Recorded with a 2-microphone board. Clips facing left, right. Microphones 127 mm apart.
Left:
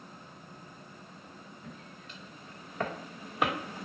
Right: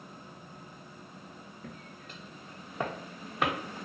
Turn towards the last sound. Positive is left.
turn(degrees=5)  # may be behind; listen again after turning